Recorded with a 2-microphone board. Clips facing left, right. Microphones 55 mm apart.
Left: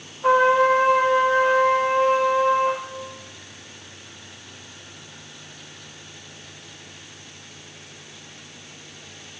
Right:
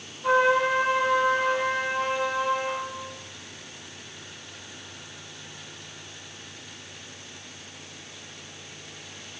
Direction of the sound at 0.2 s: 45° left (ahead or behind).